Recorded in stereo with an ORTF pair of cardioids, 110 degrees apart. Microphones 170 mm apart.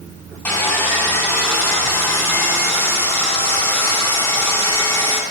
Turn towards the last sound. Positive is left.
turn(degrees=15)